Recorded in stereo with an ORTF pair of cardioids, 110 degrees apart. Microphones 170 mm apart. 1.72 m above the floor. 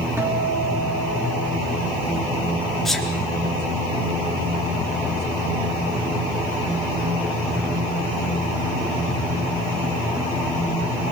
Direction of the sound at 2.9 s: Straight ahead.